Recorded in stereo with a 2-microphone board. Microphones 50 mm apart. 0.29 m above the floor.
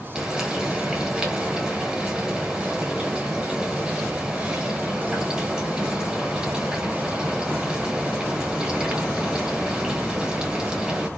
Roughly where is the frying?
Centre.